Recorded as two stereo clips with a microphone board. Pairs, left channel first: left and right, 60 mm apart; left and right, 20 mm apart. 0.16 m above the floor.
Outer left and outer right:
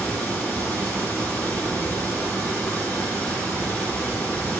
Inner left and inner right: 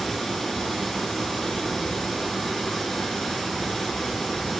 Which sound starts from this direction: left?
Running water, at 0.0 s.